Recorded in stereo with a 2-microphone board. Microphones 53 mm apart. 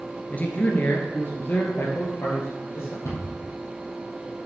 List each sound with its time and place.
0.3 s a man speaking: 30° left (ahead or behind), 1.8 m; by 2.9 s 50° left (ahead or behind), 3 m
3.0 s a cupboard door: 70° left (ahead or behind), 4 m